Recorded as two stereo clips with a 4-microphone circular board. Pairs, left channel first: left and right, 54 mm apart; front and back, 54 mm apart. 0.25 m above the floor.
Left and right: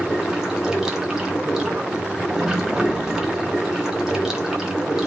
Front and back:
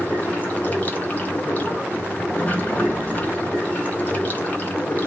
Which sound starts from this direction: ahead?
Running water, at 0.0 s.